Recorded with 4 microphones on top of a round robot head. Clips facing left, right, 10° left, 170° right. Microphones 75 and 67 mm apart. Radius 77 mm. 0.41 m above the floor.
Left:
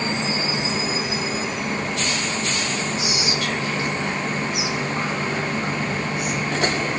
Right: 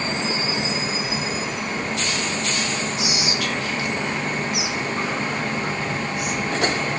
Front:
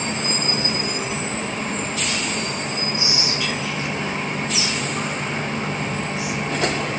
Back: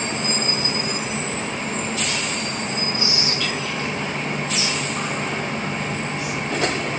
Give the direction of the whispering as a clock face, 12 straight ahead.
9 o'clock.